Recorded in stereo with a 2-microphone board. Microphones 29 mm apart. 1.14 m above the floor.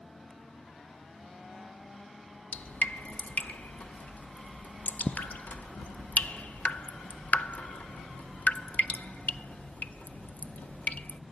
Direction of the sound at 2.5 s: 80° left.